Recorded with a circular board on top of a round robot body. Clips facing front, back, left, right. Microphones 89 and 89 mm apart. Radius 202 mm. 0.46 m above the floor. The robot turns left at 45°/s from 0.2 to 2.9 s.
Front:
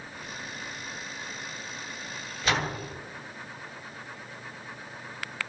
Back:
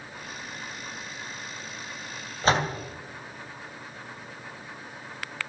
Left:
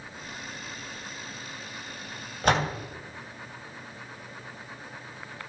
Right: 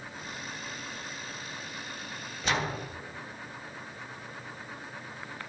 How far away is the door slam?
About 3 m.